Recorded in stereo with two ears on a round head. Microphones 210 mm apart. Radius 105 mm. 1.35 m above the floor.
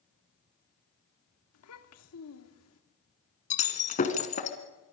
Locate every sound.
1.5 s a child speaking: 70° left (ahead or behind), 1.9 m
3.5 s breaking glass: 35° left (ahead or behind), 2 m